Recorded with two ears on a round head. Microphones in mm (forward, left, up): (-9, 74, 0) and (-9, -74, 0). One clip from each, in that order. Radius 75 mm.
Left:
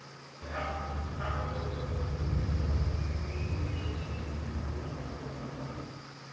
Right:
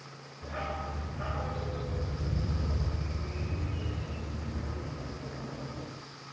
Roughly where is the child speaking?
No child speaking in this recording.